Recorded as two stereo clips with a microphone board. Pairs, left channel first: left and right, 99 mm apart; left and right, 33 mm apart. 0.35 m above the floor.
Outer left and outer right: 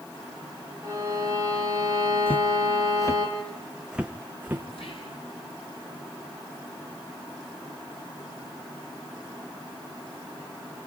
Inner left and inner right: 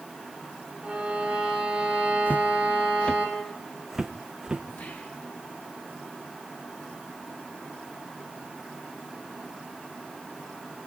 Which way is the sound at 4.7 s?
65° left (ahead or behind).